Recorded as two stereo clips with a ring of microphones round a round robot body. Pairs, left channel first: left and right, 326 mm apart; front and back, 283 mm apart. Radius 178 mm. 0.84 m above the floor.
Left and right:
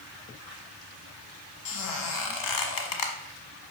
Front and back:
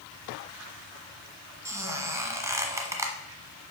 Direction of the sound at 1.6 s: 100° left.